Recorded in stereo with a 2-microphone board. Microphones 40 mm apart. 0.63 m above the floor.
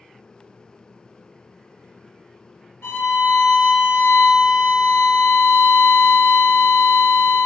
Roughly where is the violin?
Left.